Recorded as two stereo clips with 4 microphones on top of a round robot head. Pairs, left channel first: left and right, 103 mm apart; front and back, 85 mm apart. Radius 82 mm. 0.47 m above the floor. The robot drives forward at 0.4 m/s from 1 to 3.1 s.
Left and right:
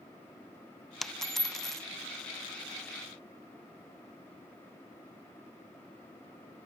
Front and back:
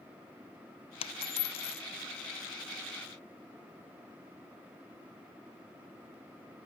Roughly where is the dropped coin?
Ahead.